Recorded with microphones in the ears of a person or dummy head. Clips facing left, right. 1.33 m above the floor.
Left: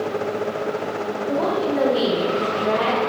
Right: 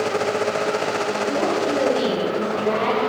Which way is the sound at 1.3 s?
10° left (ahead or behind).